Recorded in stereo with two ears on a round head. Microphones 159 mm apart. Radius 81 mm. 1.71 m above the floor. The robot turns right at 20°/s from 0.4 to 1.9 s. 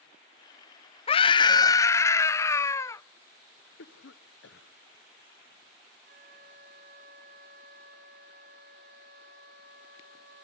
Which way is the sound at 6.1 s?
55° right (ahead or behind).